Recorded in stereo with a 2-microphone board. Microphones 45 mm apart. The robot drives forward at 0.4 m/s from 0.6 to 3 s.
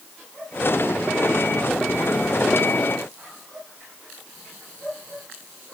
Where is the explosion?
I don't hear an explosion.